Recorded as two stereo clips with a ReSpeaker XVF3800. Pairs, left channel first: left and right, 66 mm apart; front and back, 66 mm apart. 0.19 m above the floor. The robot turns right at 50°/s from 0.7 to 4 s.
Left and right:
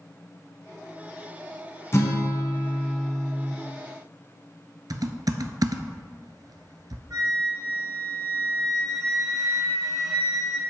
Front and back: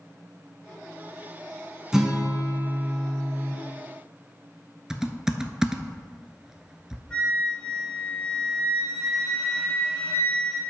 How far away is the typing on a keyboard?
About 0.7 m.